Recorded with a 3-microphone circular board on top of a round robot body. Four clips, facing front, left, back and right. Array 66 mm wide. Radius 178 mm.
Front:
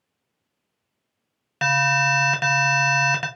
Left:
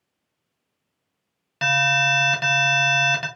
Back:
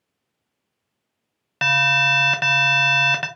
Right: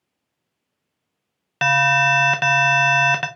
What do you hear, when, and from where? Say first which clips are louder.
1.6 s an alarm: right 4 dB, back 1 dB; 110° right, 0.8 m